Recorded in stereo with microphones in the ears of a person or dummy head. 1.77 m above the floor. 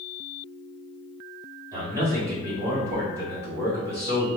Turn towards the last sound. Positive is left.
turn(degrees=-20)  # may be behind; listen again after turning